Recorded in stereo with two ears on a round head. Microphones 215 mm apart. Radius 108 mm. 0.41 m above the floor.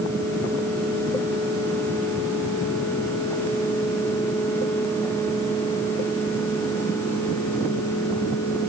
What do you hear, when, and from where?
Only background noise.